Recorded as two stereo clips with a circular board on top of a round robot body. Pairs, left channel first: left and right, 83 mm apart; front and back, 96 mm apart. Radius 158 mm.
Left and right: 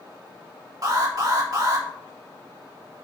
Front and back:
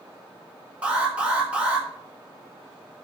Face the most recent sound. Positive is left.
turn(degrees=-105)